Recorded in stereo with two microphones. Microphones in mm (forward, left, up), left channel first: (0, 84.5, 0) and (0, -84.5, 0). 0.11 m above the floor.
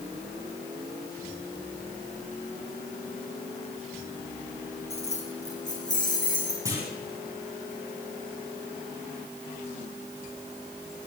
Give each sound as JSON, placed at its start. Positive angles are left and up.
{"t": 4.9, "sound": "keys jangling", "side_deg": 35, "distance_m": 3.5}
{"t": 6.7, "sound": "a clunk", "side_deg": -20, "distance_m": 5.5}